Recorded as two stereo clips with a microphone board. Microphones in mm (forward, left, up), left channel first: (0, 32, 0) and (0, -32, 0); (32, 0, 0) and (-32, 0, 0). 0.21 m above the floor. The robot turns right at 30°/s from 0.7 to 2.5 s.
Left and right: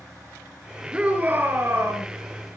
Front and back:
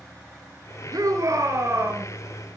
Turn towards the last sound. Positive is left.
turn(degrees=-115)